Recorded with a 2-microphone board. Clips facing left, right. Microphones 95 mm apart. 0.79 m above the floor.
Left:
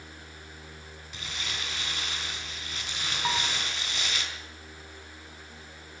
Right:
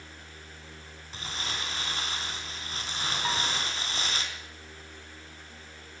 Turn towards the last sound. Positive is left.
turn(degrees=15)  # may be behind; listen again after turning